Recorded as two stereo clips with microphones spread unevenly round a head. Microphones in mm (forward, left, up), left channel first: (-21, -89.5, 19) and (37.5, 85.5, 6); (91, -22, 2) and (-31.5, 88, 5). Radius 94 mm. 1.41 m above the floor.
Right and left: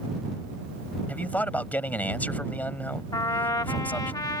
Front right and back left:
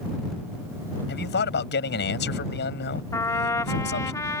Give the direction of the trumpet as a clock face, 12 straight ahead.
3 o'clock.